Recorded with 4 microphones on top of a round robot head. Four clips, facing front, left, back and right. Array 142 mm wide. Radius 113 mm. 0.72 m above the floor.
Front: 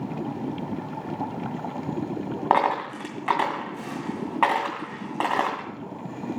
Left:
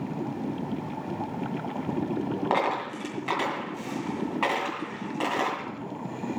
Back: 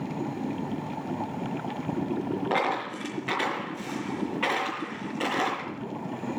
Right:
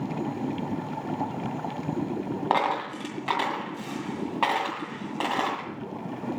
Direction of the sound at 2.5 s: 15° right.